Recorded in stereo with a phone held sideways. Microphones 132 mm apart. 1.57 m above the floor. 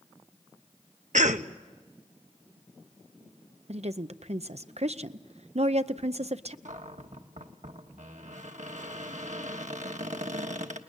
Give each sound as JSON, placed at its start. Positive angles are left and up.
{"t": 1.1, "sound": "a cough", "side_deg": -70, "distance_m": 1.1}
{"t": 3.7, "sound": "a woman speaking", "side_deg": -55, "distance_m": 0.7}
{"t": 6.7, "sound": "a cupboard door", "side_deg": -65, "distance_m": 1.3}